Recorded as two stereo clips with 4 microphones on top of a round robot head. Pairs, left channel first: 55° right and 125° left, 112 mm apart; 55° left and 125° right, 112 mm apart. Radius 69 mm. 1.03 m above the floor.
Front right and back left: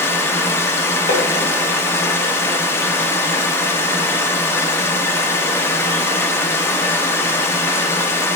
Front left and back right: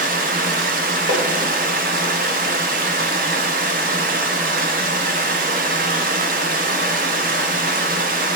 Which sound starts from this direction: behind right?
Running water, at 0.0 s.